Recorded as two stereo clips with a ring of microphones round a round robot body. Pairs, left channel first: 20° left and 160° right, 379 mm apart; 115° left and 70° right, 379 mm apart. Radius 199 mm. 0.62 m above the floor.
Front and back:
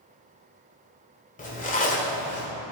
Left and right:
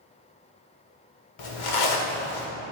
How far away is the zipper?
About 1.7 m.